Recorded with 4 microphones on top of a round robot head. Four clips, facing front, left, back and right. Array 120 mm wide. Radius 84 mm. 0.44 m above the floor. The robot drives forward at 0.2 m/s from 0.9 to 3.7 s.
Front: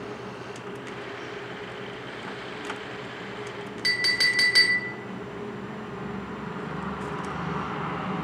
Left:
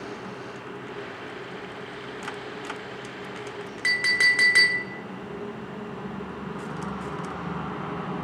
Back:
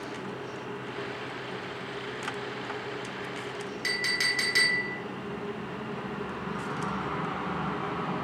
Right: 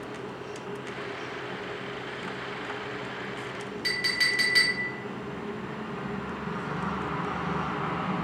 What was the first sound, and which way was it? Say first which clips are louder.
A clink: left 7 dB, front 5 dB; 65° left.